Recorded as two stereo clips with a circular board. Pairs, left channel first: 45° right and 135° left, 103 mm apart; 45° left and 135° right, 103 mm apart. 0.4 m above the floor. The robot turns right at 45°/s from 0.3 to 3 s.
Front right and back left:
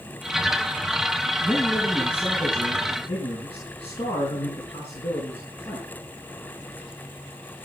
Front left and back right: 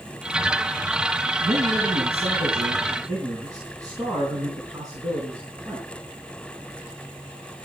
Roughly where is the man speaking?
Behind right.